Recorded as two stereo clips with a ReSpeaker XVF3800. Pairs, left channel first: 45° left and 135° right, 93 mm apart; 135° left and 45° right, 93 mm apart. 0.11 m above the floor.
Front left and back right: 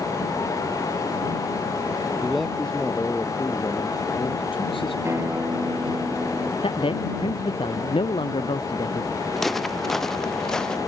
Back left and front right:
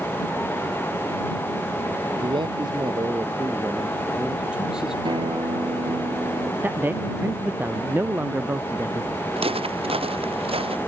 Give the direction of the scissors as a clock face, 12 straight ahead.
I don't hear scissors.